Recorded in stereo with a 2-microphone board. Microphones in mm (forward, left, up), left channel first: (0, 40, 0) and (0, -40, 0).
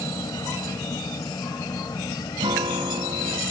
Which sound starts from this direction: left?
An insect, at 0.0 s.